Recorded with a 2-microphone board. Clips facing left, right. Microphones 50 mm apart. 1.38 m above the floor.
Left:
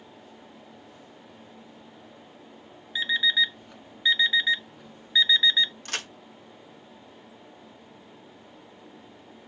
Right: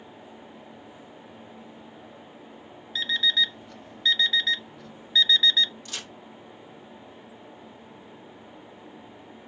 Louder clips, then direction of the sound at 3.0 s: Left 1 dB; 15° left (ahead or behind).